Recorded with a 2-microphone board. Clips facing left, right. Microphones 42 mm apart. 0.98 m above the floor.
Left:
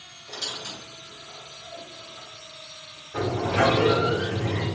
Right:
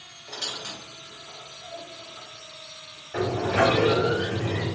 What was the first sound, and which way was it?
A squeak, 80° right.